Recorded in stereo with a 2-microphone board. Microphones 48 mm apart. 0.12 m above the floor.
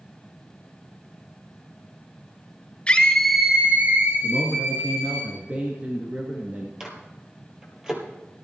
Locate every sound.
2.9 s a scream: 25° left (ahead or behind), 1.5 m; by 5.2 s 70° right (ahead or behind), 3 m
4.2 s a man speaking: 35° right (ahead or behind), 2.0 m
6.8 s a microwave: 15° right (ahead or behind), 2 m